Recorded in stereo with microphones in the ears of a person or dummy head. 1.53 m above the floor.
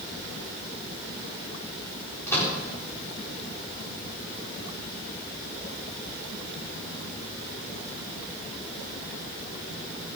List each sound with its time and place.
2.3 s a microwave: 15° left (ahead or behind), 4.5 m